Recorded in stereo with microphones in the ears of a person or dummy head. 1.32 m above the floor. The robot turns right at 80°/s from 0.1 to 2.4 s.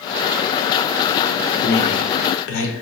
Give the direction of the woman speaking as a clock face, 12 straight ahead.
10 o'clock.